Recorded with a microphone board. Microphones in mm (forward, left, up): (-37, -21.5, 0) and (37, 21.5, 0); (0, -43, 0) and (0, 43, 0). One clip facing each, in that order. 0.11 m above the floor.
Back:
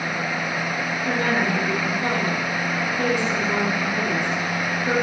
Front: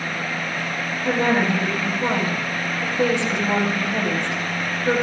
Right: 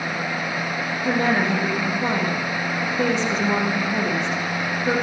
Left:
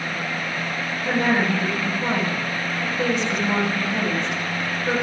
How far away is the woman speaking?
About 4 m.